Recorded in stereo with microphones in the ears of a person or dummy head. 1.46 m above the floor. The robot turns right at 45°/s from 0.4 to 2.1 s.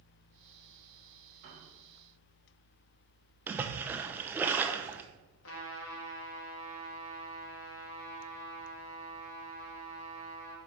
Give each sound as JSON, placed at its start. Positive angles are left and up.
{"t": 1.4, "sound": "a piano", "side_deg": -50, "distance_m": 2.0}
{"t": 3.5, "sound": "a splash", "side_deg": -15, "distance_m": 0.6}
{"t": 5.4, "sound": "a trumpet", "side_deg": 70, "distance_m": 1.4}